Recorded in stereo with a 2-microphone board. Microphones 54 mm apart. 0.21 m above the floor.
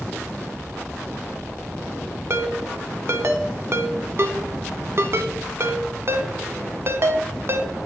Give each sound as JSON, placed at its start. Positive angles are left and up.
{"t": 2.3, "sound": "a ringtone", "side_deg": -50, "distance_m": 0.6}